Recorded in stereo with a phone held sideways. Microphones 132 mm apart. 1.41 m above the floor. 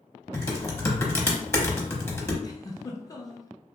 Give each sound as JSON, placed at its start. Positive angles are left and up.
{"t": 0.3, "sound": "typing on a keyboard", "side_deg": 20, "distance_m": 0.7}
{"t": 2.4, "sound": "a giggle", "side_deg": 25, "distance_m": 0.5}